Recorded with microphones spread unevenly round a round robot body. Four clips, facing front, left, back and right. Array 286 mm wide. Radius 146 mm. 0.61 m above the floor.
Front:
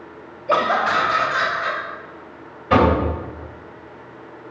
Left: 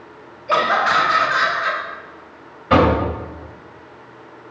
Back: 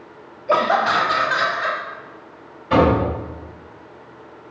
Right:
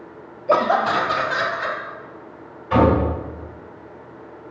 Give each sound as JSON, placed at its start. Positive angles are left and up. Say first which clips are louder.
{"t": 0.5, "sound": "laughter", "louder": "even, back 1 dB", "azimuth_deg": -95, "distance_m": 1.2}
{"t": 2.7, "sound": "knocking", "louder": "left 2 dB, even", "azimuth_deg": 70, "distance_m": 4.0}